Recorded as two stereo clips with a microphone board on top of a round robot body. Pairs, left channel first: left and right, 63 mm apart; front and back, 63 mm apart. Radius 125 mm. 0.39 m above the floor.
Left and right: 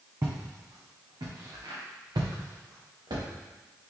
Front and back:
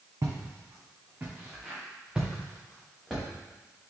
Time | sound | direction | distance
0.2 | footsteps | 140° right | 1.5 m